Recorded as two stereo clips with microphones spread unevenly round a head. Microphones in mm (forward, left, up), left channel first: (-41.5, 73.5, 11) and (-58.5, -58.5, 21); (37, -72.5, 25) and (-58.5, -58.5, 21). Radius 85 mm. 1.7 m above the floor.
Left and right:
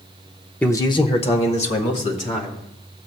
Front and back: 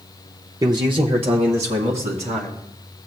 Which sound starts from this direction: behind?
A man speaking, at 0.6 s.